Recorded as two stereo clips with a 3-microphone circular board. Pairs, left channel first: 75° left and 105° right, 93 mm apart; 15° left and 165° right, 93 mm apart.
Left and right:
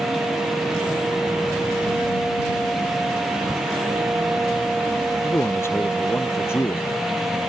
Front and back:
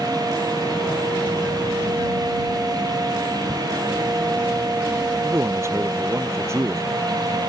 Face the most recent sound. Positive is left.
turn(degrees=135)